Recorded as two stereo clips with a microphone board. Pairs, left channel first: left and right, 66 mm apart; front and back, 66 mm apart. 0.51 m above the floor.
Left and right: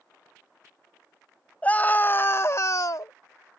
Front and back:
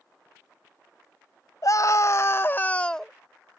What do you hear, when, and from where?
1.6 s a scream: 25° left; by 3.1 s 85° left